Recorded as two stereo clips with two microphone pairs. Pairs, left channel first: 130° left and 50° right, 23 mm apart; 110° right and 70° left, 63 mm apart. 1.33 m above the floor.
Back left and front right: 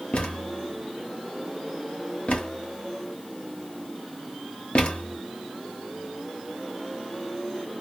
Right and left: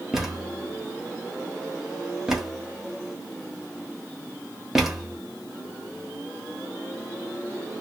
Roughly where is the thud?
Behind left.